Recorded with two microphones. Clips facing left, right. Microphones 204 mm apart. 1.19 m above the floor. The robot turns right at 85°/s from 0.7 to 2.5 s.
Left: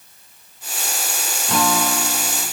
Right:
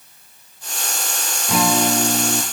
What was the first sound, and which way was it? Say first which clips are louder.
A guitar: right 3 dB; 175° right.